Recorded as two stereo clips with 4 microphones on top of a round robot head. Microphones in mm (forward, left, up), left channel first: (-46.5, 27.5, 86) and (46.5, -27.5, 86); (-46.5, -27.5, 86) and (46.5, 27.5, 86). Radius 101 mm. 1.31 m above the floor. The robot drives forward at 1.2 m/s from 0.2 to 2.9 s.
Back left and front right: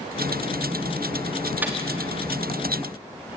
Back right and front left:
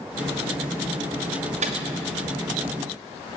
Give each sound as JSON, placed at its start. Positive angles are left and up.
{"t": 1.6, "sound": "a microwave", "azimuth_deg": 45, "distance_m": 2.5}